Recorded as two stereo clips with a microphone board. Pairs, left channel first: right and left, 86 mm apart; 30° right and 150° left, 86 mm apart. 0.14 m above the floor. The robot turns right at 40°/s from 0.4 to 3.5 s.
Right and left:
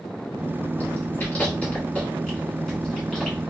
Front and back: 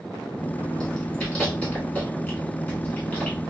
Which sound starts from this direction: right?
Chewing, at 0.8 s.